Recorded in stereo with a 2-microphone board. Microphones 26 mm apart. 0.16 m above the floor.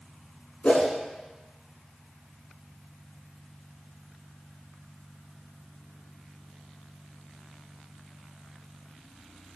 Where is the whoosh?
50° left (ahead or behind), 0.5 m.